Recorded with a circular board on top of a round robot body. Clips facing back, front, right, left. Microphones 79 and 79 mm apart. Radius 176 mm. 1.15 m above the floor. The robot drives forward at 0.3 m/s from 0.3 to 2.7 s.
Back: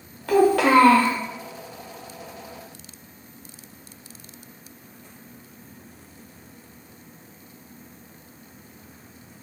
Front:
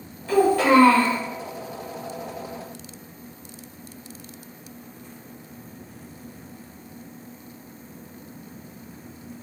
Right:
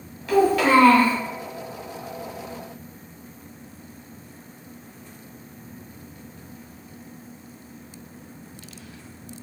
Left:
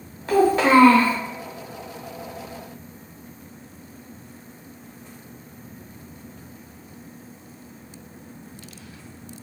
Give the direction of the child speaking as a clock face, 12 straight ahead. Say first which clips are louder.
Back 1 dB, left 1 dB; 7 o'clock.